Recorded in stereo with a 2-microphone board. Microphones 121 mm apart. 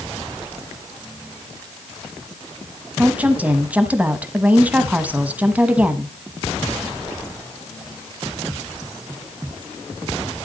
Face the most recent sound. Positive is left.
turn(degrees=-10)  # may be behind; listen again after turning